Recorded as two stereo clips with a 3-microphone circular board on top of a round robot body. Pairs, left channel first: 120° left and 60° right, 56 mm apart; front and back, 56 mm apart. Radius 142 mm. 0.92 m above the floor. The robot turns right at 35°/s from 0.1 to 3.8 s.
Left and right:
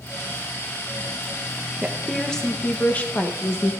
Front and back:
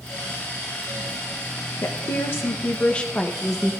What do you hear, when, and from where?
1.8 s a woman speaking: 25° left, 1.0 m; by 3.7 s 90° left, 1.0 m